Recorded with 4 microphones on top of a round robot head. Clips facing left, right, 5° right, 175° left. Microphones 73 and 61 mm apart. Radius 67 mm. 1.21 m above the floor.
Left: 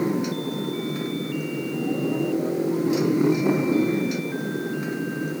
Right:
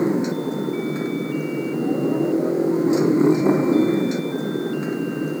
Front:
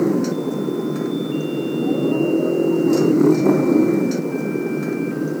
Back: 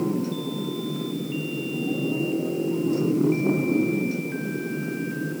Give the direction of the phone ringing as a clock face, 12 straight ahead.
I don't hear a phone ringing.